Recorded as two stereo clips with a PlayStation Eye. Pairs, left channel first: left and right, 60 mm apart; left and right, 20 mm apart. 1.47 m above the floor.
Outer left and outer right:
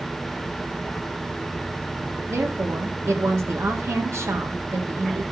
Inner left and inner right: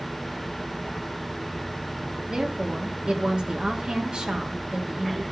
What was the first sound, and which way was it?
A woman speaking, 55° right (ahead or behind).